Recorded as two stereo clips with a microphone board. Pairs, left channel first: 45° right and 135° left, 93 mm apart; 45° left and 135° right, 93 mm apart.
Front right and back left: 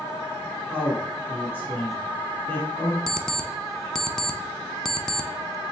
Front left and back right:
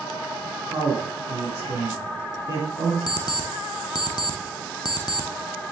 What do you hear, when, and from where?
0.7 s a man speaking: 105° right, 1.7 m
3.1 s an alarm clock: 35° left, 0.6 m